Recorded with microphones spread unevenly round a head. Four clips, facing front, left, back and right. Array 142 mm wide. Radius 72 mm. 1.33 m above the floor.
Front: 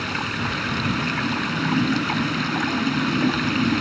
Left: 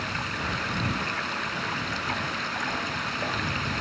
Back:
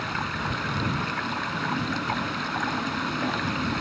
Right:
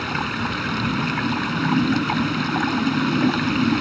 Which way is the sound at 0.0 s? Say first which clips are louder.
Right 7 dB, front 3 dB; 60° right.